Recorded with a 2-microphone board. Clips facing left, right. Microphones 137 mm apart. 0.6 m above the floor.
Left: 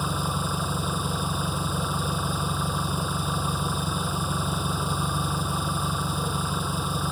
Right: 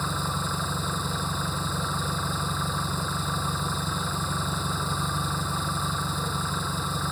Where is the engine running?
10° left (ahead or behind).